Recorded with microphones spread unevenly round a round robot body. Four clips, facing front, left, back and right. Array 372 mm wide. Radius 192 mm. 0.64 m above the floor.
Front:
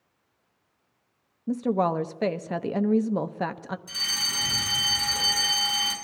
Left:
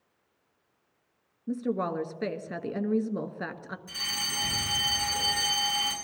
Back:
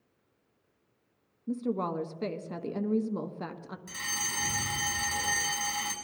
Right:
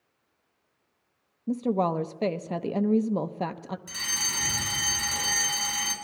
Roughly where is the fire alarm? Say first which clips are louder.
Right 1 dB, front 1 dB; behind right.